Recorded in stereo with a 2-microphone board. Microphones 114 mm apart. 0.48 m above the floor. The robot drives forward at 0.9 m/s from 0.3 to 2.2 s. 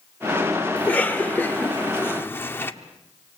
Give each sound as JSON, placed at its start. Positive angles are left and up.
{"t": 0.8, "sound": "a cough", "side_deg": 15, "distance_m": 1.8}